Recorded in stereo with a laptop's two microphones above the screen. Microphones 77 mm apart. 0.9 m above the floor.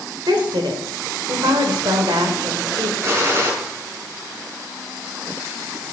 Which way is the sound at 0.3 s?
80° right.